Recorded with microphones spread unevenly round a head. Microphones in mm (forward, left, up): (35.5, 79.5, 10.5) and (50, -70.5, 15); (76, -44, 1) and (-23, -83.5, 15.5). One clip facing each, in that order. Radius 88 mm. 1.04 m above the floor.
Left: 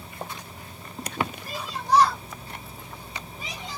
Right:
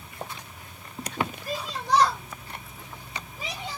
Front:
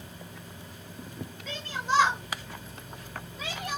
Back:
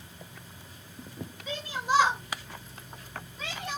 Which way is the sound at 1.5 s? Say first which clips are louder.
Left 2 dB, back 1 dB; 85° right.